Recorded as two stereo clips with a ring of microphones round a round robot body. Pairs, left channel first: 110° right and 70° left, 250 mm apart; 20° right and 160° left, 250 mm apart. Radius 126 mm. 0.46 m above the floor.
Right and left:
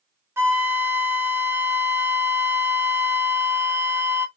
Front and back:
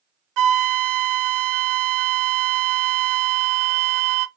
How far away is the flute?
About 0.7 m.